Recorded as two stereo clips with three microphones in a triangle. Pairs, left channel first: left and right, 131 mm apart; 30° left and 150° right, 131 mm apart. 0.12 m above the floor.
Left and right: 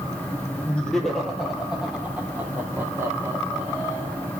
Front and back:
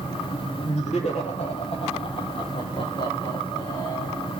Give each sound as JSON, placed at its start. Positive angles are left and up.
{"t": 0.7, "sound": "laughter", "azimuth_deg": 10, "distance_m": 3.0}